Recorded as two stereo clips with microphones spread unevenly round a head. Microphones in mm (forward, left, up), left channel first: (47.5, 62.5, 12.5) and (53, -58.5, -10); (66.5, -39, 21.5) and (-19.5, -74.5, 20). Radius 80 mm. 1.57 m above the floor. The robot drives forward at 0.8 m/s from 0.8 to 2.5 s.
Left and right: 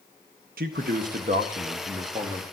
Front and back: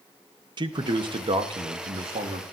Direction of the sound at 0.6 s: 120° right.